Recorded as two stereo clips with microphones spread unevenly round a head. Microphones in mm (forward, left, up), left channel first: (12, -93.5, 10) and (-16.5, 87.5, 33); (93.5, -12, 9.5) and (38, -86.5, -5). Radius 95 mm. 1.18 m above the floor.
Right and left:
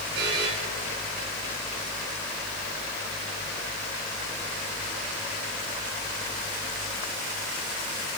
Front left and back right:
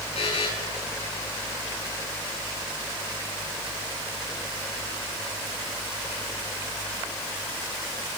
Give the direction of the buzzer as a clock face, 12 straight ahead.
10 o'clock.